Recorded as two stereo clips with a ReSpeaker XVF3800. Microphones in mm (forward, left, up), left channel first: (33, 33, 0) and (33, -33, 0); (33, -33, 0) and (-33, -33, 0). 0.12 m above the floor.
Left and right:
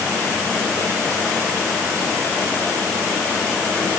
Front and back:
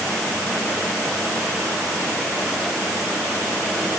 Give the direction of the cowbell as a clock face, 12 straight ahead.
I don't hear a cowbell.